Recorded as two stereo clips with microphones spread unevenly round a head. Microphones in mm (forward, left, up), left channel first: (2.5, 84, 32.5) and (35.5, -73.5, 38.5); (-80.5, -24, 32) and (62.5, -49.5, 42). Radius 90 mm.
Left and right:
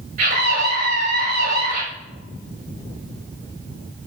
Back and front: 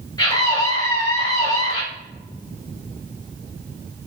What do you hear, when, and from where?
0.2 s a scream: 125° right, 8 m